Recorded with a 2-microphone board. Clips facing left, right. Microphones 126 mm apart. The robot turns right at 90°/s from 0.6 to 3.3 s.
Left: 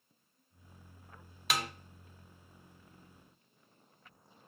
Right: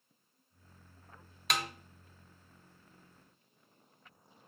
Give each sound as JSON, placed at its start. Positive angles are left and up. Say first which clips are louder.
{"t": 1.5, "sound": "a snare drum", "louder": "even", "side_deg": 0, "distance_m": 0.8}